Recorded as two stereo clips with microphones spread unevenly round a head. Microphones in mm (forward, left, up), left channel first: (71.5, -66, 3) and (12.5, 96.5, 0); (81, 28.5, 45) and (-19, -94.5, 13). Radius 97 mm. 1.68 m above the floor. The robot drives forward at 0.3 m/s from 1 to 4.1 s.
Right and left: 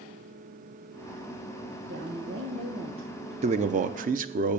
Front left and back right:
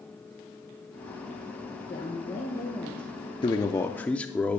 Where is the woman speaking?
110° left, 1.4 m; by 3.3 s 125° left, 1.6 m.